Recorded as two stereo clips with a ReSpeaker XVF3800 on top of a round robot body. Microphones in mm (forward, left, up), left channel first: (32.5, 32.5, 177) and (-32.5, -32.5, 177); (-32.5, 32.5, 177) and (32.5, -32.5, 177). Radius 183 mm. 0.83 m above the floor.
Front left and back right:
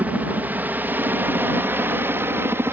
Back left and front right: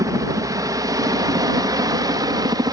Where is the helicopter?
70° right; by 2.7 s 75° right.